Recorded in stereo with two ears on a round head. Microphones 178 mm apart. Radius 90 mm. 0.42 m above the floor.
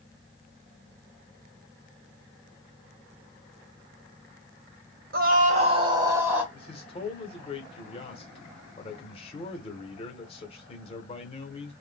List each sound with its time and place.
5.1 s a scream: 50° right (ahead or behind), 1.2 m; by 6.4 s 5° right (ahead or behind), 1.4 m
6.5 s a man speaking: 30° left (ahead or behind), 1.3 m